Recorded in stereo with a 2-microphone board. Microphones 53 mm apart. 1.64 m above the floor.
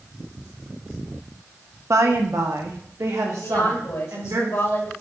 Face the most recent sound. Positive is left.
turn(degrees=80)